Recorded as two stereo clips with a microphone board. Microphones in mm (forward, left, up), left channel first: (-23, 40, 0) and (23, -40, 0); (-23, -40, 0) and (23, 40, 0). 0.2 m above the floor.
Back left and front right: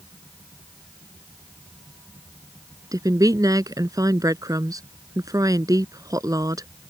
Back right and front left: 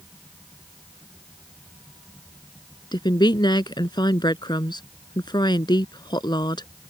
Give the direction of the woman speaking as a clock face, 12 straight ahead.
3 o'clock.